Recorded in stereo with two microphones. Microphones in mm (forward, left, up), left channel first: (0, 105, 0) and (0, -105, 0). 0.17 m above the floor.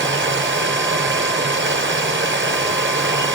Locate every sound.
0.0 s running water: 65° right (ahead or behind), 1.0 m